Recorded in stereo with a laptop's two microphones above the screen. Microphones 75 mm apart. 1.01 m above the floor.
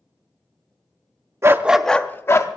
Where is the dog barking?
40° right (ahead or behind), 0.5 m; by 2.5 s 40° left (ahead or behind), 0.9 m.